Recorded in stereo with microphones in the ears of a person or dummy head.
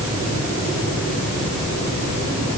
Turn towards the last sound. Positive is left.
No sound to turn to.